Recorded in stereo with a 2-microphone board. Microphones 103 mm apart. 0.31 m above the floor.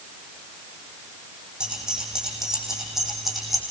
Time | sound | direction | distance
1.6 | keys jangling | 5° right (ahead or behind) | 9.5 m